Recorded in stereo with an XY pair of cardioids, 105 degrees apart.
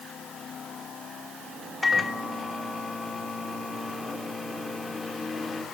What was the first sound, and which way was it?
A microwave, 20° left.